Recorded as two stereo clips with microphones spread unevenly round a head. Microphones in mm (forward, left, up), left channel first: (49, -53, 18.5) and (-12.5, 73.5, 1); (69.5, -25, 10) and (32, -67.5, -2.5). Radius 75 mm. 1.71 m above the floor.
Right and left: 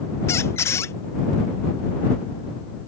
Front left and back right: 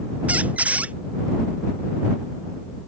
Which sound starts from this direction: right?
A squeak, at 0.3 s.